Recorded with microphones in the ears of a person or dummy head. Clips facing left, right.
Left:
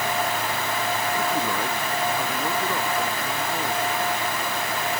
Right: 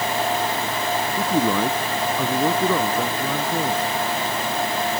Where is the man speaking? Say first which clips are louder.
Right 5 dB; 85° right.